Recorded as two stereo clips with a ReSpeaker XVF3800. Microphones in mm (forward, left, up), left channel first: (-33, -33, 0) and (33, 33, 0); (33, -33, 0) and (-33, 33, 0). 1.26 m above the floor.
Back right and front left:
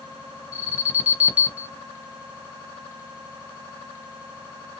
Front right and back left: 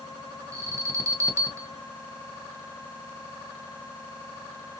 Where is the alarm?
110° left, 1.1 m.